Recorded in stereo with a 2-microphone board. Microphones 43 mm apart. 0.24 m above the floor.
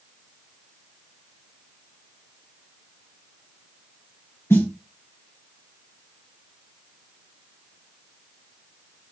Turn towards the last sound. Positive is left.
turn(degrees=75)  # may be behind; listen again after turning